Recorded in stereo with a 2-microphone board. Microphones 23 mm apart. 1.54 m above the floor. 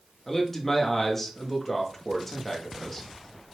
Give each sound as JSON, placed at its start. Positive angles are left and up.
{"t": 0.3, "sound": "a man speaking", "side_deg": 15, "distance_m": 3.0}